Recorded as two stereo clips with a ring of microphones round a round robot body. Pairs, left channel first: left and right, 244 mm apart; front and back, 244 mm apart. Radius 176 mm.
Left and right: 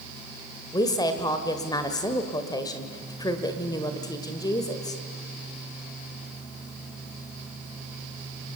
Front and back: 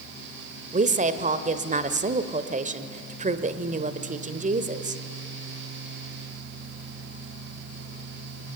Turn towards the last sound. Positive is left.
turn(degrees=155)